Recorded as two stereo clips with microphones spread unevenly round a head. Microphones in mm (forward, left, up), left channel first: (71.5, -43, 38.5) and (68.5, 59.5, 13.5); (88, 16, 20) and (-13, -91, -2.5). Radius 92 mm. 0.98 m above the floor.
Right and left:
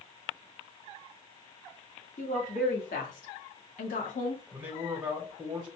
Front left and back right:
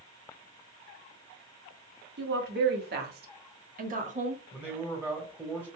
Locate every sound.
2.2 s a woman speaking: 135° right, 1.8 m; by 4.4 s 90° right, 1.6 m
4.5 s a man speaking: 155° left, 1.2 m